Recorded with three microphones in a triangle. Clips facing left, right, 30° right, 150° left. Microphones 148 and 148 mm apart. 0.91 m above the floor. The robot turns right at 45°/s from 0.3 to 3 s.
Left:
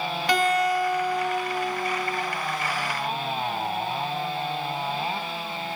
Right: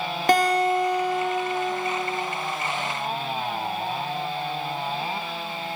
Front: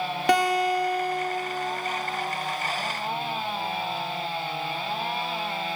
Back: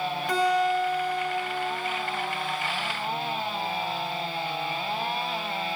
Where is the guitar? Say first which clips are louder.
Right 3 dB, front 2 dB; 45° right, 0.6 m; by 2.2 s 40° left, 0.6 m.